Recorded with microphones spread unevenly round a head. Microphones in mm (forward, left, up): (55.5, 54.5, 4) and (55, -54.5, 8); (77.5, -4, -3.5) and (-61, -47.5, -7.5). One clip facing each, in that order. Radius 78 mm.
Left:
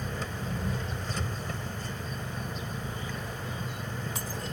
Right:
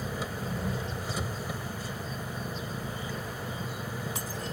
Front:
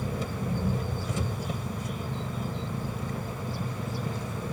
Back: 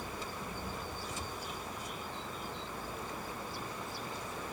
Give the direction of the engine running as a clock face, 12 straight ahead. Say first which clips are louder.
Right 1 dB, front 9 dB; 12 o'clock.